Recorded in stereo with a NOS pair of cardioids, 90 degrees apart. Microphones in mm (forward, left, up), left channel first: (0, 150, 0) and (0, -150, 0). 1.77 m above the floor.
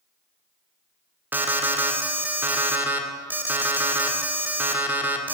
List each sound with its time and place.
1.3 s an alarm: 5° right, 0.6 m